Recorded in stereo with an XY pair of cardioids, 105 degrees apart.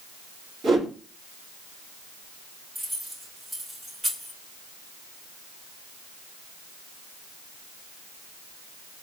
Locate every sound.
0.6 s a whoosh: 50° right, 2.5 m
2.8 s keys jangling: 35° right, 3 m